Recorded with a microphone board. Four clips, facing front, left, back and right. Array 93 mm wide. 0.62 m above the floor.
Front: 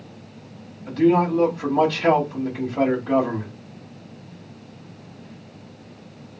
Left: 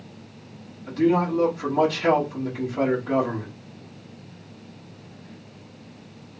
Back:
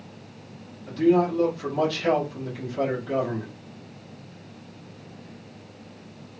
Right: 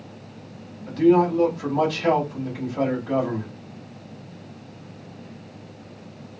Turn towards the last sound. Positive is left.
turn(degrees=5)